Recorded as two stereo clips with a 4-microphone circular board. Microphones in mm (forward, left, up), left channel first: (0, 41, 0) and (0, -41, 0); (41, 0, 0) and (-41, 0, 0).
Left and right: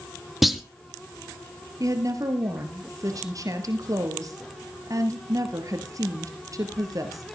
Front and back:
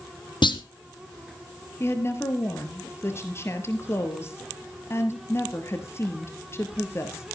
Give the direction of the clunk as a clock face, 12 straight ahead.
12 o'clock.